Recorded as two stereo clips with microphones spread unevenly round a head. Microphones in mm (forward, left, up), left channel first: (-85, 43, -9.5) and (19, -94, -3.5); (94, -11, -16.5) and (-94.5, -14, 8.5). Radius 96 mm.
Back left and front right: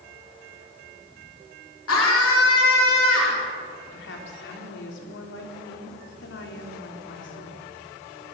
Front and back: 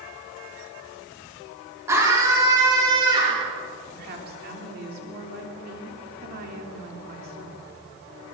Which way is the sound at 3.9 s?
140° left.